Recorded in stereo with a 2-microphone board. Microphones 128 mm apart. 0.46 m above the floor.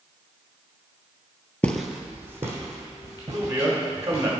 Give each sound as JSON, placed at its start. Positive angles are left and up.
{"t": 1.6, "sound": "footsteps", "side_deg": 10, "distance_m": 0.5}
{"t": 3.3, "sound": "a man speaking", "side_deg": -20, "distance_m": 1.5}